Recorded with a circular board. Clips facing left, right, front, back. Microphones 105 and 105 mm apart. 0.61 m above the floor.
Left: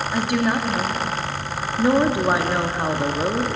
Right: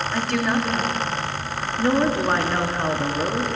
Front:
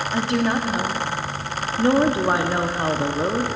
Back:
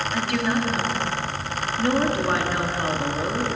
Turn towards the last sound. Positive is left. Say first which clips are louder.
# left 2 dB, front 3 dB
turn(degrees=25)